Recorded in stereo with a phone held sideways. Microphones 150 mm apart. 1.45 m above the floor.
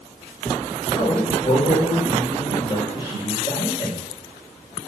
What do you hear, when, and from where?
0.9 s a man speaking: 35° left (ahead or behind), 6.5 m